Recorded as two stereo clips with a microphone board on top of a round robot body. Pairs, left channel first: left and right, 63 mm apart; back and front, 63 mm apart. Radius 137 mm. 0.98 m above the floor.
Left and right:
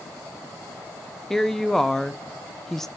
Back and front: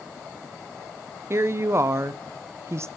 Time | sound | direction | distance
1.3 | a woman speaking | 5° left | 0.6 m